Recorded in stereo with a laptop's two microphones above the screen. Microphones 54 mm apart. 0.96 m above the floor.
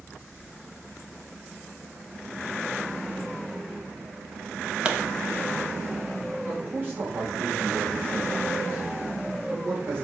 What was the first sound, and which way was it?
A pop, 20° right (ahead or behind).